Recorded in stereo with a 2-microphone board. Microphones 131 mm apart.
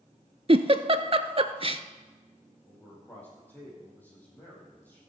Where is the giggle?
45° right (ahead or behind), 0.6 m.